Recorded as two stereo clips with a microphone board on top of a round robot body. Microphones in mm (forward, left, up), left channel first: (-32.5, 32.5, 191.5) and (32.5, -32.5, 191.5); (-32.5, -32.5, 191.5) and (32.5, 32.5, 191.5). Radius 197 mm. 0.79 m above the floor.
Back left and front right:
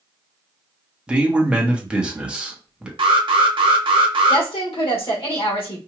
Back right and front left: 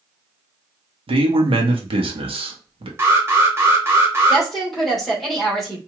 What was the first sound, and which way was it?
A man speaking, 35° left.